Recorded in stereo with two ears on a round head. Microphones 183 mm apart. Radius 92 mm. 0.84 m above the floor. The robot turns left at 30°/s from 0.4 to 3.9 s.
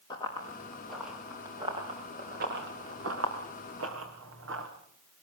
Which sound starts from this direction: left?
Running footsteps, at 0.1 s.